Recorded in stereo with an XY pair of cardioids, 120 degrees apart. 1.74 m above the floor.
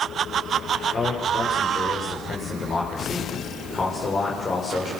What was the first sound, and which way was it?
A man speaking, 30° left.